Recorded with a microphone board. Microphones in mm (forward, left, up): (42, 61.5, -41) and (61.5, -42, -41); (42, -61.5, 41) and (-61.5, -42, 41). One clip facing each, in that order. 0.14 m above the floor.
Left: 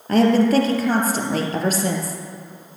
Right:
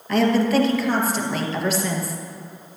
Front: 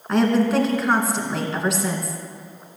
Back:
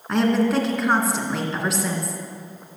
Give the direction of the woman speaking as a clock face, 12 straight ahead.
9 o'clock.